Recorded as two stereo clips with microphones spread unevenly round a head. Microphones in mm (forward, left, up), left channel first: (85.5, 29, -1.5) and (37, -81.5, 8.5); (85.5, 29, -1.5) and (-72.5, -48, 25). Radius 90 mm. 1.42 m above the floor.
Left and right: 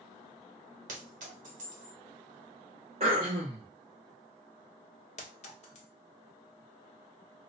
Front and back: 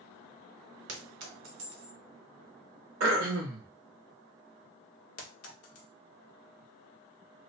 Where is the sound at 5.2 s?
40° left, 1.1 m.